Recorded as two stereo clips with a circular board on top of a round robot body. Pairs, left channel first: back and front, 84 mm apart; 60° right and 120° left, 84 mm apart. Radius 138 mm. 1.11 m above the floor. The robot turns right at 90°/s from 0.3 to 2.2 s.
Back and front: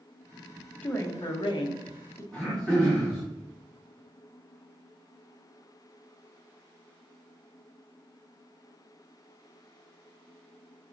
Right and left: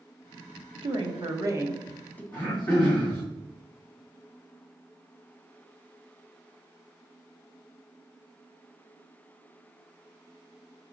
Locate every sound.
0.8 s a woman speaking: 110° left, 0.8 m; by 2.2 s 125° right, 0.8 m
2.3 s throat clearing: 115° right, 1.8 m